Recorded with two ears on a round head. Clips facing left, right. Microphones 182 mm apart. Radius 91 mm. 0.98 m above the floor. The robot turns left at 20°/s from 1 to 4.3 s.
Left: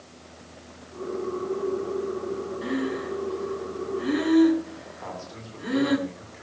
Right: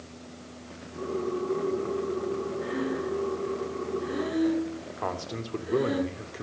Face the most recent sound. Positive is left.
turn(degrees=-65)  # may be behind; listen again after turning